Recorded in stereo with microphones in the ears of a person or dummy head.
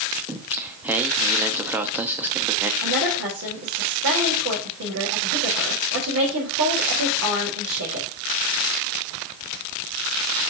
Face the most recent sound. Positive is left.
turn(degrees=-85)